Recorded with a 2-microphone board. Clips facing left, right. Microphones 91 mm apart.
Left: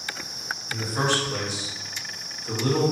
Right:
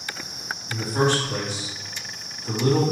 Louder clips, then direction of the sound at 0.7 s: Right 4 dB; 50° right (ahead or behind).